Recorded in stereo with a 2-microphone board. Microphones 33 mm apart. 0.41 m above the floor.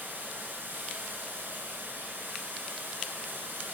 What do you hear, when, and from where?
0.0 s running water: 80° right, 1.3 m